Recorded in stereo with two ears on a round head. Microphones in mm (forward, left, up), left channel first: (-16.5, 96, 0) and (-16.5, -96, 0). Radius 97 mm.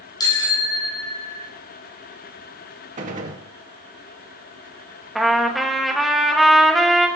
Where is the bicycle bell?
20° left (ahead or behind), 8 m; by 1.5 s 30° left (ahead or behind), 7 m.